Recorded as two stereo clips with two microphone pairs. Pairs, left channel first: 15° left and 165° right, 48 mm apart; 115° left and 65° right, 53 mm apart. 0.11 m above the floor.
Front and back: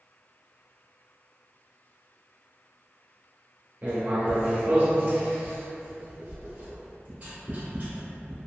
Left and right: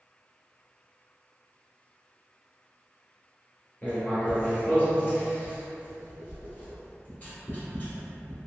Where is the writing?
155° left, 1.3 m.